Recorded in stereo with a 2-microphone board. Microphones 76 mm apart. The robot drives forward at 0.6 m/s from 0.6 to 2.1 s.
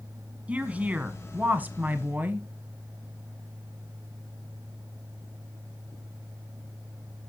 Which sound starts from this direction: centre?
A woman speaking, at 0.5 s.